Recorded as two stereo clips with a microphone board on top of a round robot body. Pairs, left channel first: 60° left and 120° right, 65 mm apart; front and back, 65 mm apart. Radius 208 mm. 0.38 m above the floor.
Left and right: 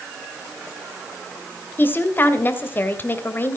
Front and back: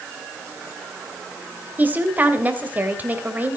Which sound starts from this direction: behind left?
A woman speaking, at 1.8 s.